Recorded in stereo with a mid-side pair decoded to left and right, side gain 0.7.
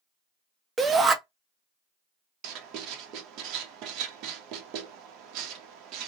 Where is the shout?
20° right, 0.8 m.